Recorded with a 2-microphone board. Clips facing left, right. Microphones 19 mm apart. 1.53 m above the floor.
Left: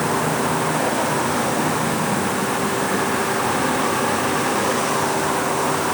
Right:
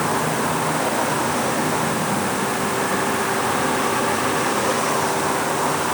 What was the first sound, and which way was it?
Only background noise.